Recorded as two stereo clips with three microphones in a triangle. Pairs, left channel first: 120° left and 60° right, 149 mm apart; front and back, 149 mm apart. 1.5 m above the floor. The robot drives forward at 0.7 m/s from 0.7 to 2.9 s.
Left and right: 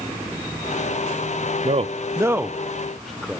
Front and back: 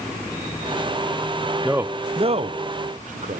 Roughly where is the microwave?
I don't hear a microwave.